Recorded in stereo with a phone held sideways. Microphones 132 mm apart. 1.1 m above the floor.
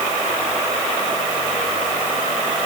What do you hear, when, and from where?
Only background noise.